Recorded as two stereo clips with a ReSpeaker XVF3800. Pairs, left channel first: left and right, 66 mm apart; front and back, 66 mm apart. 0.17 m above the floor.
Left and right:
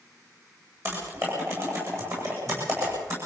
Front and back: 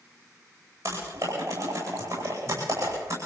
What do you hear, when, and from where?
0.8 s typing on a keyboard: 135° right, 9 m